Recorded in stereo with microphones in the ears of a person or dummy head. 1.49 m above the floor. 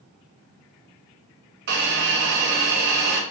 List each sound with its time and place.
1.7 s a hiss: 55° right (ahead or behind), 0.6 m